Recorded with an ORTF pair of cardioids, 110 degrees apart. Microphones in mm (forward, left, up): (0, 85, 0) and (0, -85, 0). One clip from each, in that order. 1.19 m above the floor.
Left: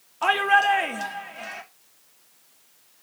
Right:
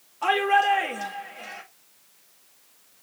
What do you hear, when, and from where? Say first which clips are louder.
0.2 s a shout: left 2 dB; 40° left, 2.5 m